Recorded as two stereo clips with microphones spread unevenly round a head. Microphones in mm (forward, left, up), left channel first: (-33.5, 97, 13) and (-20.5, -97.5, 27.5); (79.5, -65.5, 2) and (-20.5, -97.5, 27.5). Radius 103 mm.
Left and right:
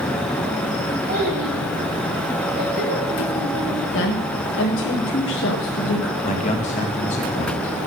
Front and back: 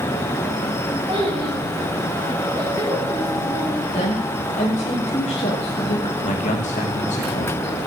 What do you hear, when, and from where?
1.1 s a child speaking: 130° right, 6.5 m; by 3.8 s 100° right, 3.5 m
3.9 s a woman speaking: 60° left, 1.5 m
6.2 s a man speaking: 35° left, 2 m